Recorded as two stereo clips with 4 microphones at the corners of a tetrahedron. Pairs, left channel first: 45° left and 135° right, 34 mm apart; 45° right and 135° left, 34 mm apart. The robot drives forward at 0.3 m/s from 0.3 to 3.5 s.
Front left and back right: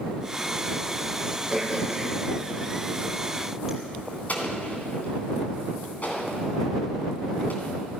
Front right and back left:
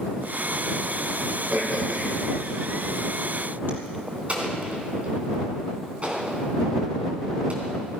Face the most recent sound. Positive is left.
turn(degrees=90)